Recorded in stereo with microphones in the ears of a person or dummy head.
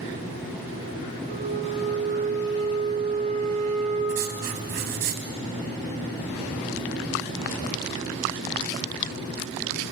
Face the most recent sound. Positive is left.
turn(degrees=-50)  # may be behind; listen again after turning